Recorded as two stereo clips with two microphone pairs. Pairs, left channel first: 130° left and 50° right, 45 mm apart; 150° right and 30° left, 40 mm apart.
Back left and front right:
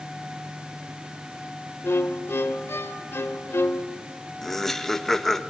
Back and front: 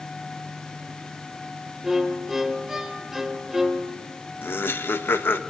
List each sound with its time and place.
1.8 s a violin: 110° left, 1.8 m
4.4 s laughter: 145° right, 1.6 m